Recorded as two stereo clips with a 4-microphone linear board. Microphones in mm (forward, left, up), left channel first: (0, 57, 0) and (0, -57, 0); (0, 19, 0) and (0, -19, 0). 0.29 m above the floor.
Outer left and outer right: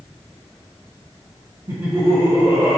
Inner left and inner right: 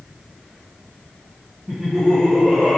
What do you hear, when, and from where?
1.7 s laughter: 35° right (ahead or behind), 3 m; by 2.8 s 25° right (ahead or behind), 3.5 m